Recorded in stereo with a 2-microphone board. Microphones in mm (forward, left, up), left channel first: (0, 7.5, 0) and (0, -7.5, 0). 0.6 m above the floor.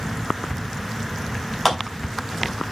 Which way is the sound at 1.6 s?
15° left (ahead or behind).